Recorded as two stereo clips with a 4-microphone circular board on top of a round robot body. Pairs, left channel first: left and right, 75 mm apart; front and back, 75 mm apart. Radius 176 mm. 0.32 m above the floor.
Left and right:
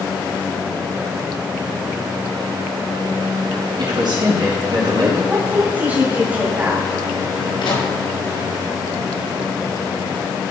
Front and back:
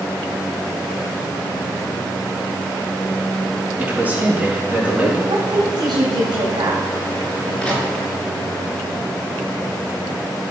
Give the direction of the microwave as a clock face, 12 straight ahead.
9 o'clock.